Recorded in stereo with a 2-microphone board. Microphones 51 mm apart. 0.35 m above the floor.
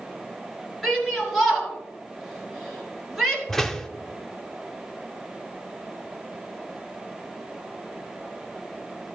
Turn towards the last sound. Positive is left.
turn(degrees=10)  # may be behind; listen again after turning